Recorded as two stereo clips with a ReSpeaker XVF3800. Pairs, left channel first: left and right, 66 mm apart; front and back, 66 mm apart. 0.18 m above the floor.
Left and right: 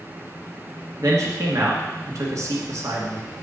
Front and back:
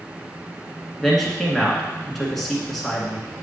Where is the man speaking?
85° right, 1.7 m.